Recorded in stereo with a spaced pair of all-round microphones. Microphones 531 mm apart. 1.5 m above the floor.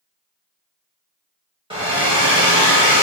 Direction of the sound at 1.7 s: 10° right (ahead or behind).